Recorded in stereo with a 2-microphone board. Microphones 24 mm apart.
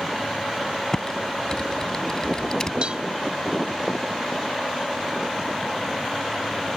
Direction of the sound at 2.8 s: 50° right (ahead or behind).